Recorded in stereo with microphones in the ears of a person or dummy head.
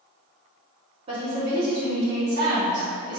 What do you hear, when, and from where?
1.1 s a woman speaking: 30° right (ahead or behind), 0.7 m; by 3.2 s 65° right (ahead or behind), 1.6 m